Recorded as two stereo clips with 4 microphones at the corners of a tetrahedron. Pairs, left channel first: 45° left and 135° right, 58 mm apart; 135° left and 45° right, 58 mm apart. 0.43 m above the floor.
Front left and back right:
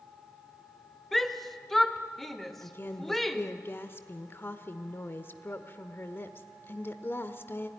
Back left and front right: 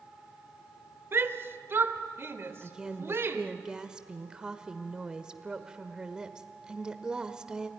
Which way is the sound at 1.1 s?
40° right.